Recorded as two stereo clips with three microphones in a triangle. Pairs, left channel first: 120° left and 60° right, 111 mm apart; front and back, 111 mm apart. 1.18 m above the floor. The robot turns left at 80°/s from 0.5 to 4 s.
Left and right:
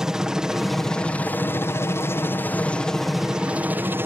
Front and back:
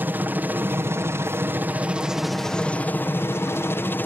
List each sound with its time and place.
0.0 s a helicopter: 135° right; by 4.1 s 35° right